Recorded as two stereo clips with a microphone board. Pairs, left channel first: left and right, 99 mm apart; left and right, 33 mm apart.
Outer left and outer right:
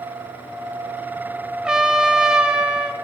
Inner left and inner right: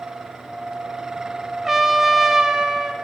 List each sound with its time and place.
1.6 s a trumpet: 10° right (ahead or behind), 0.7 m